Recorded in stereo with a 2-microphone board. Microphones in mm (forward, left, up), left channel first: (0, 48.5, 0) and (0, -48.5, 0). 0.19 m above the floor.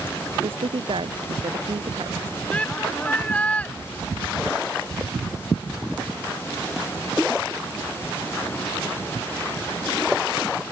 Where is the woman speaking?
70° right (ahead or behind).